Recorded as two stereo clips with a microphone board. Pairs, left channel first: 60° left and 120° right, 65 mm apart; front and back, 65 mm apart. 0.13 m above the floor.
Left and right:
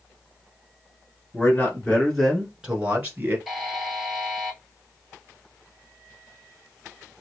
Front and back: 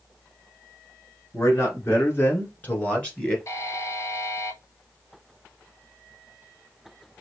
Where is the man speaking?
20° left, 1.6 m; by 3.4 s 70° right, 1.7 m.